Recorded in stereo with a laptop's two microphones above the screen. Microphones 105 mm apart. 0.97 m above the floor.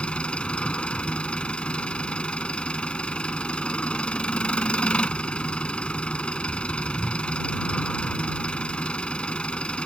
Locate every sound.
0.0 s an engine running: 10° left (ahead or behind)